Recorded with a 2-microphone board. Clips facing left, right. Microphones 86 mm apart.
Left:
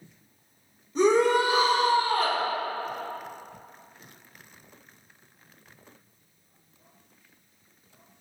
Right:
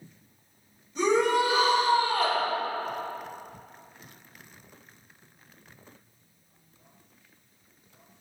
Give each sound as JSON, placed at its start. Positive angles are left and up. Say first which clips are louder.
{"t": 0.9, "sound": "a shout", "louder": "left 3 dB", "side_deg": 40, "distance_m": 2.0}